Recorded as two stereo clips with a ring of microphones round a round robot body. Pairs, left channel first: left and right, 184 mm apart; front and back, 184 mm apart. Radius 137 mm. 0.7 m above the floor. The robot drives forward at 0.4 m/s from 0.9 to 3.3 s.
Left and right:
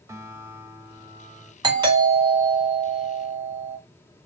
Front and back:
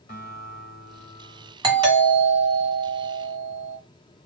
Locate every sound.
0.1 s a guitar: 15° right, 1.9 m; by 1.5 s 20° right, 1.7 m
1.6 s a doorbell: 135° right, 1.7 m; by 3.8 s 155° right, 2 m